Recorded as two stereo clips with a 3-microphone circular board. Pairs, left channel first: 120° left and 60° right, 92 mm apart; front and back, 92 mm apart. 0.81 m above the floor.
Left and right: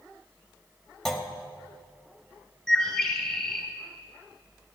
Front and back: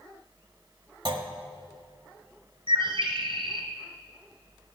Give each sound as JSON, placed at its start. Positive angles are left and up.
{"t": 1.1, "sound": "a clunk", "azimuth_deg": -155, "distance_m": 1.3}
{"t": 2.7, "sound": "a bird", "azimuth_deg": -160, "distance_m": 2.0}